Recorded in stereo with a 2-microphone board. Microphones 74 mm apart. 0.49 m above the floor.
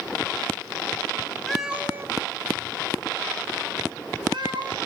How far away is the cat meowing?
About 0.7 m.